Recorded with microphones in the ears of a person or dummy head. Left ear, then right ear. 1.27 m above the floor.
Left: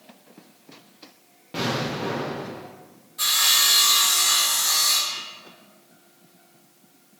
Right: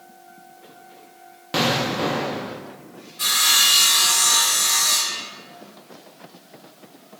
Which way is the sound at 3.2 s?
65° left (ahead or behind).